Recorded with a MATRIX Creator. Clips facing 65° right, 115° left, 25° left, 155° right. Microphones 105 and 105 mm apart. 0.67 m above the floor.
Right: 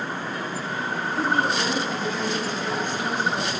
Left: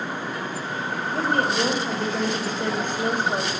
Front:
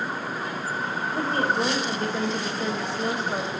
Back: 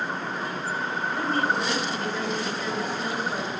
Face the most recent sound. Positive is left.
turn(degrees=80)